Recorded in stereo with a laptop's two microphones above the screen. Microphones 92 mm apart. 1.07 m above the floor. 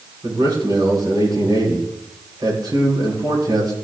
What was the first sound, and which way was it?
A man speaking, 50° right (ahead or behind).